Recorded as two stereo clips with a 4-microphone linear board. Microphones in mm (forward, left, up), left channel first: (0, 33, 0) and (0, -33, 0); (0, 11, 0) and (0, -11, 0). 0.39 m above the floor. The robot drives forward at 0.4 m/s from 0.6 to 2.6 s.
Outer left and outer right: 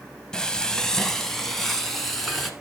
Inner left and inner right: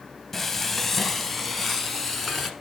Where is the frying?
15° left (ahead or behind), 0.5 m; by 2.5 s 5° left (ahead or behind), 1.3 m.